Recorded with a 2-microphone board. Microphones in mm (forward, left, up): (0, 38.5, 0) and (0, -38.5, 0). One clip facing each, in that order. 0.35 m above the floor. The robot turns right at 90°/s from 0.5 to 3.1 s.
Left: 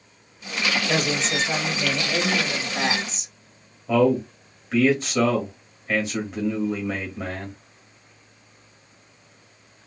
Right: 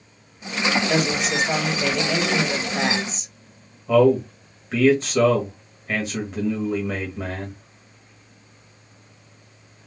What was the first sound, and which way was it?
A woman speaking, 160° left.